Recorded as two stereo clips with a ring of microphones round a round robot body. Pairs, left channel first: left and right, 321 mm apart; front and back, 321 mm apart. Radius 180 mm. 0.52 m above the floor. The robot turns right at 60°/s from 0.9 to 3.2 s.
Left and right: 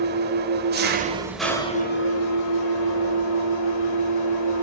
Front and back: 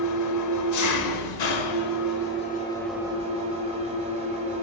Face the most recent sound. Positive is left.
turn(degrees=110)